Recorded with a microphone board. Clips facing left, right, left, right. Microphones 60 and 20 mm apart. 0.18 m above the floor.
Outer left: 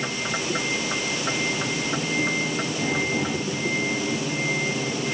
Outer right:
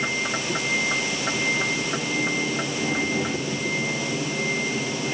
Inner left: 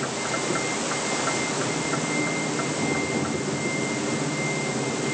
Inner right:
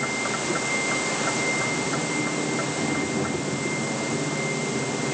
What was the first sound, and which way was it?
Only background noise.